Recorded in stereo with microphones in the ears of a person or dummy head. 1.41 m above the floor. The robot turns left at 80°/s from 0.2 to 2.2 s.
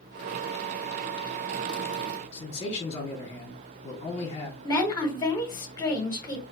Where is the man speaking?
30° left (ahead or behind), 0.8 m.